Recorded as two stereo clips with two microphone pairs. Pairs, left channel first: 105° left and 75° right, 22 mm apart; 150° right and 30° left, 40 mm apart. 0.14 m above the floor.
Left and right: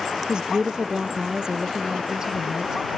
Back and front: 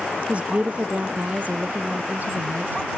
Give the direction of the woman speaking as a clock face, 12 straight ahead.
1 o'clock.